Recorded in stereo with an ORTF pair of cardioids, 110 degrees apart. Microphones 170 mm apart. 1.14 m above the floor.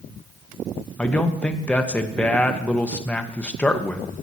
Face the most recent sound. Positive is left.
turn(degrees=10)